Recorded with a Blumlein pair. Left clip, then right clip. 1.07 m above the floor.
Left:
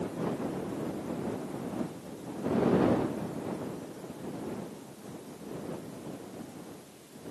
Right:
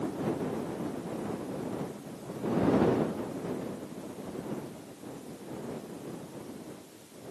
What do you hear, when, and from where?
Only background noise.